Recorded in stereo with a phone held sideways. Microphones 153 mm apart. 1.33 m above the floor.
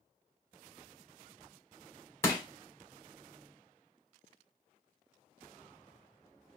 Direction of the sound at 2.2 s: 15° left (ahead or behind).